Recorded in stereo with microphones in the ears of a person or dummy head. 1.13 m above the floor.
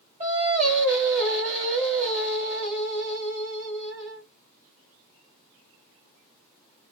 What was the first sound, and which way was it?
Singing, 40° right (ahead or behind).